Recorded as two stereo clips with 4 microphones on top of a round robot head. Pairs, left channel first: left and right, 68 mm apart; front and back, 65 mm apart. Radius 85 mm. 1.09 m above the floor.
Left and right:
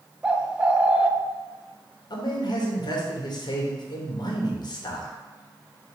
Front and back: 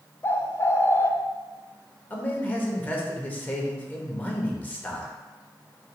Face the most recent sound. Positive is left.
turn(degrees=70)